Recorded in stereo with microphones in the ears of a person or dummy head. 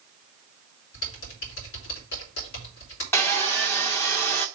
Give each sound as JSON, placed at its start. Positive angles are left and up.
{"t": 0.9, "sound": "typing on a keyboard", "side_deg": 70, "distance_m": 3.0}
{"t": 3.1, "sound": "sawing", "side_deg": 15, "distance_m": 0.8}